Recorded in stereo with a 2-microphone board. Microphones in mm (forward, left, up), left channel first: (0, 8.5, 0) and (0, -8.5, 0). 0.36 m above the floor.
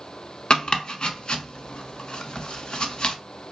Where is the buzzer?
No buzzer in this recording.